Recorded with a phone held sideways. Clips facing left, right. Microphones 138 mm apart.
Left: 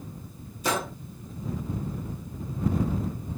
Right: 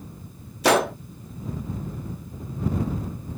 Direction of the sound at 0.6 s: 70° right (ahead or behind).